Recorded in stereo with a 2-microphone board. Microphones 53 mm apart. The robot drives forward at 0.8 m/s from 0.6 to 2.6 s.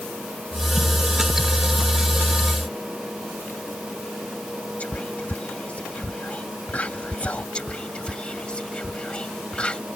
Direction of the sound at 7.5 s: 20° left (ahead or behind).